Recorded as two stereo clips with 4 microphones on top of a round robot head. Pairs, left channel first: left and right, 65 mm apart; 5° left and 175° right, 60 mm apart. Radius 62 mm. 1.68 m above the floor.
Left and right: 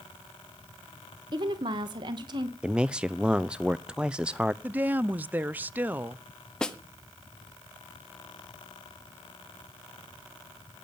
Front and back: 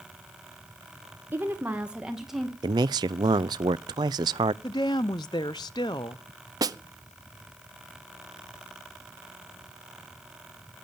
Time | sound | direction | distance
1.3 | a woman speaking | 110° right | 1.8 m
2.6 | a man speaking | 170° right | 0.5 m
4.6 | a woman speaking | 30° right | 0.5 m
6.6 | a snare drum | 170° left | 1.0 m